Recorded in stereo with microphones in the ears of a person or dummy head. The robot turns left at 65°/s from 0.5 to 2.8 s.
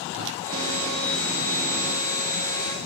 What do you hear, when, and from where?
0.1 s a whoosh: 70° right (ahead or behind), 1.6 m